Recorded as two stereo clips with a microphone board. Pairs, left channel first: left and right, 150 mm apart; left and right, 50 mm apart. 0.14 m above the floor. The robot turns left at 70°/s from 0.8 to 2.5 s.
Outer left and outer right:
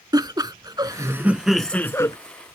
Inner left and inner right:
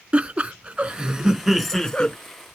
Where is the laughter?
130° right; by 2.2 s 135° left.